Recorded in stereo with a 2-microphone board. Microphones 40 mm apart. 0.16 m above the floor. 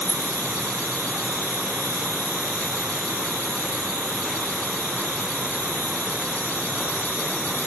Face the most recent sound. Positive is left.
turn(degrees=70)  # may be behind; listen again after turning